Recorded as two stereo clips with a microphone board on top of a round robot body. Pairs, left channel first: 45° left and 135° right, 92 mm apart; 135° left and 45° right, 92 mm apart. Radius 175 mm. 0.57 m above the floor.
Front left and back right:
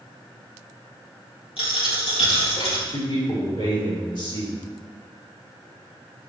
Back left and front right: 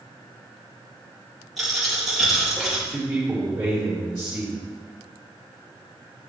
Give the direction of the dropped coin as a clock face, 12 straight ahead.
11 o'clock.